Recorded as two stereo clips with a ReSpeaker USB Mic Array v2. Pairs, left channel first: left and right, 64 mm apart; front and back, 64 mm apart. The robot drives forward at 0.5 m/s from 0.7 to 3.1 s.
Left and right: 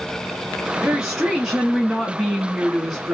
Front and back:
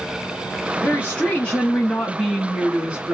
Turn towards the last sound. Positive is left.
turn(degrees=175)